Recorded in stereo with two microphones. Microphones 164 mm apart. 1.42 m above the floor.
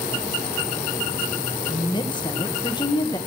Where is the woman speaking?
25° left (ahead or behind), 1.4 m.